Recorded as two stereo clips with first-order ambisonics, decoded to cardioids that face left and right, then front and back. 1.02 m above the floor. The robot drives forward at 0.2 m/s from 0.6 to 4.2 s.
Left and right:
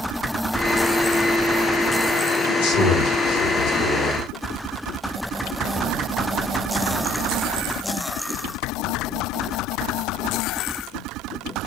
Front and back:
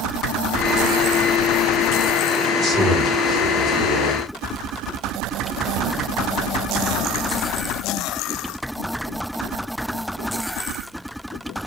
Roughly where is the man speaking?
Left.